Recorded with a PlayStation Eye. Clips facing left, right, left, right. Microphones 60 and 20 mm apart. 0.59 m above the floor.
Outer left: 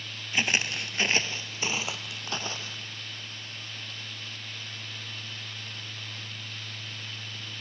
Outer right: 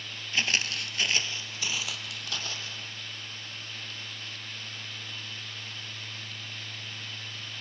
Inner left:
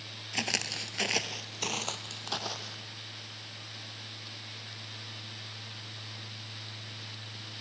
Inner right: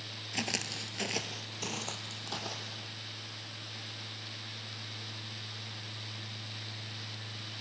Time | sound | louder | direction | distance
0.3 | footsteps | outer left 2 dB, inner left 3 dB | 20° left (ahead or behind) | 0.6 m